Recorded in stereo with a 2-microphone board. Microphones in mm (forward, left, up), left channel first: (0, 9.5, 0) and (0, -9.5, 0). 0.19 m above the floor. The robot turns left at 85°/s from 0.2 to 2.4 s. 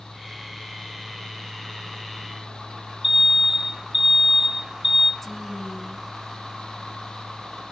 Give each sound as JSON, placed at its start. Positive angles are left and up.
{"t": 3.0, "sound": "an alarm", "side_deg": -25, "distance_m": 1.0}
{"t": 5.2, "sound": "a woman speaking", "side_deg": 20, "distance_m": 1.4}